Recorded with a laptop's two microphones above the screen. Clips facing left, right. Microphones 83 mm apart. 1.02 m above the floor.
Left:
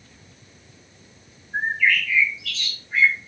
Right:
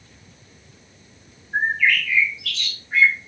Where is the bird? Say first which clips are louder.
Right 1 dB; 65° right (ahead or behind), 0.9 m.